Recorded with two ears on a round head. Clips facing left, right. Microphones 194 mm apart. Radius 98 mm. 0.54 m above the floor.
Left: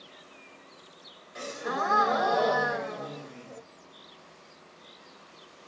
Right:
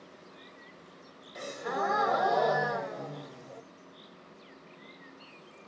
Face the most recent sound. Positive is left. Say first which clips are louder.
# left 1 dB
turn(degrees=5)  # may be behind; listen again after turning